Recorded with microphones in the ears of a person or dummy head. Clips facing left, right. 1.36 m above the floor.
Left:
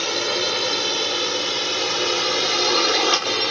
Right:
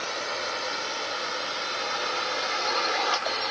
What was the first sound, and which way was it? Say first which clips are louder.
A drone: left 9 dB; 65° left (ahead or behind).